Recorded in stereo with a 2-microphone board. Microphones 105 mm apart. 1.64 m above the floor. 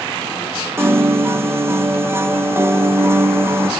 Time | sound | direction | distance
0.8 | a piano | 25° right (ahead or behind) | 0.9 m